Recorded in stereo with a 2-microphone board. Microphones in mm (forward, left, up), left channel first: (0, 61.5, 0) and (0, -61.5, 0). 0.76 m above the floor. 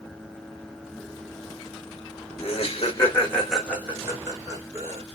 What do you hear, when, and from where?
2.4 s laughter: 45° left (ahead or behind), 1.0 m; by 5.0 s 35° right (ahead or behind), 1.9 m